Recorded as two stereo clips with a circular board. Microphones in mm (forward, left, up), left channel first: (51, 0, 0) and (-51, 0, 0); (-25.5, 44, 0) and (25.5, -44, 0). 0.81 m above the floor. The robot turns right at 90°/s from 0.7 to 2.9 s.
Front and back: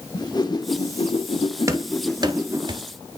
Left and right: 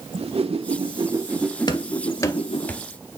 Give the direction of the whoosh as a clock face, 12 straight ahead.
2 o'clock.